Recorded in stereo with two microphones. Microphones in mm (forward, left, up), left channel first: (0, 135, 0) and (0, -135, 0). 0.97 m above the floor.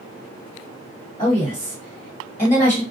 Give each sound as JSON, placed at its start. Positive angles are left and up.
{"t": 1.2, "sound": "a woman speaking", "side_deg": 20, "distance_m": 1.6}